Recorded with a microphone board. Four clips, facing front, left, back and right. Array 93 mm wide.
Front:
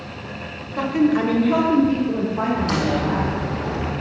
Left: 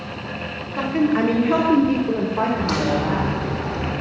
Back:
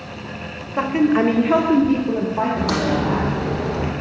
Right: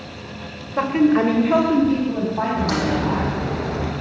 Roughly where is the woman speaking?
Behind right.